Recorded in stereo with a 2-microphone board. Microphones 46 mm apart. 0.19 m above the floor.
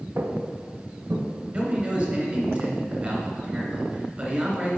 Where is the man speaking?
35° right (ahead or behind), 2.5 m.